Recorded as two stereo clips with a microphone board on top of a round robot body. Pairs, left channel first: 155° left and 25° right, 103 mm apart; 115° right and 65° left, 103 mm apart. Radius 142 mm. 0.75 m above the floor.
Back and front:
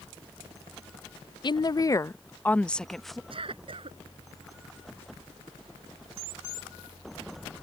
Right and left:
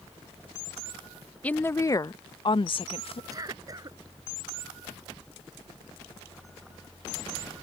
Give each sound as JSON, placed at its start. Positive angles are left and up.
{"t": 1.4, "sound": "a woman speaking", "azimuth_deg": 175}
{"t": 3.3, "sound": "a cough", "azimuth_deg": 15}